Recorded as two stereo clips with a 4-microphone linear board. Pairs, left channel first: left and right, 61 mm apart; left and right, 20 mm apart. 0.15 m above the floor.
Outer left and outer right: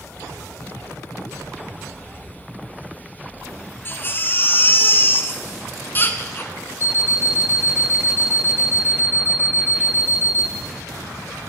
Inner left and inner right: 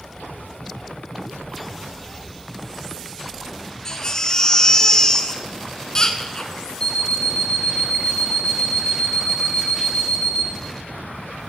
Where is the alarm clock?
40° left (ahead or behind), 1.0 m.